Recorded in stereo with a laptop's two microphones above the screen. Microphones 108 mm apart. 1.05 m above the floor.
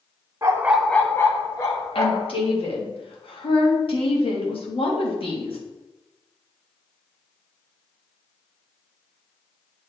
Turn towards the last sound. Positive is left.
turn(degrees=60)  # may be behind; listen again after turning